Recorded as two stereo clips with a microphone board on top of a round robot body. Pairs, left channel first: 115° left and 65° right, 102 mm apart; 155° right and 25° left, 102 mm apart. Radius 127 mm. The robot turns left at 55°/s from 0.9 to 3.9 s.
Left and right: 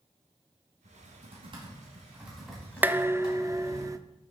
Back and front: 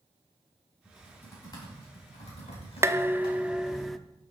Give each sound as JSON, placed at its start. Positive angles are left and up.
{"t": 0.8, "sound": "typing on a keyboard", "azimuth_deg": -70, "distance_m": 4.0}
{"t": 2.8, "sound": "dishes clattering", "azimuth_deg": -10, "distance_m": 0.8}